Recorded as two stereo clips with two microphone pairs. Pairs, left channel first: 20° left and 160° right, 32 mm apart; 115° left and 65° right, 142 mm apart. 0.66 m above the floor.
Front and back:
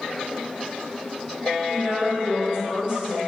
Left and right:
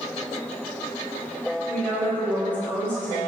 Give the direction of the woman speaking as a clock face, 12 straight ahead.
6 o'clock.